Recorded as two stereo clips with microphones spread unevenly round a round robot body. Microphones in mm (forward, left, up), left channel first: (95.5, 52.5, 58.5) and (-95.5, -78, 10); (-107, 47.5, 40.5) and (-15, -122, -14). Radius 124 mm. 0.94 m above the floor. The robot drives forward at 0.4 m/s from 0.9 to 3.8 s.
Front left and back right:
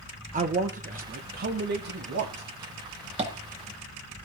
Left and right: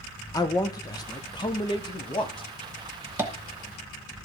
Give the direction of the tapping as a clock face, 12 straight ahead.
4 o'clock.